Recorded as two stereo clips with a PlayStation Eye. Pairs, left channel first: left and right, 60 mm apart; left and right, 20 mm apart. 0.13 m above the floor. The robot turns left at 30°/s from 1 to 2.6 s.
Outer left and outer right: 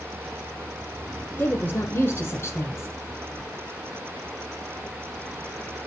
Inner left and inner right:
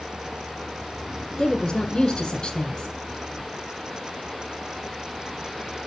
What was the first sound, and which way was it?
A woman speaking, 125° left.